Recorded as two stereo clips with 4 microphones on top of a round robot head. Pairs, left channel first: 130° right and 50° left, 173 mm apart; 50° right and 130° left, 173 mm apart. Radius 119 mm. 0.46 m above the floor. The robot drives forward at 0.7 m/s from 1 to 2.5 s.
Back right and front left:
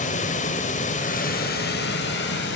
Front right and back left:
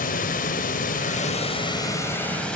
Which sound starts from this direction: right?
Running water, at 0.0 s.